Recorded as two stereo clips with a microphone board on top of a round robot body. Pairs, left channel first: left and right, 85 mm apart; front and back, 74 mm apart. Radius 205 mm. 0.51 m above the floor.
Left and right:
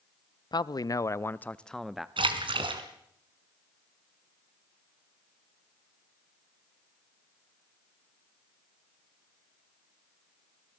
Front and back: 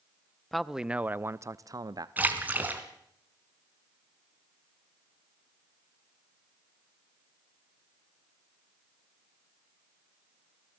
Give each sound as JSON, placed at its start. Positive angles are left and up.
{"t": 0.5, "sound": "a man speaking", "azimuth_deg": 90, "distance_m": 0.9}
{"t": 2.2, "sound": "a splash", "azimuth_deg": -110, "distance_m": 2.5}